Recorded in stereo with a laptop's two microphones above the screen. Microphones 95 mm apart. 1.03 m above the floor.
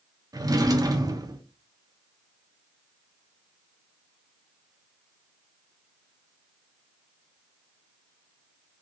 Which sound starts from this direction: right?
A drawer, at 0.3 s.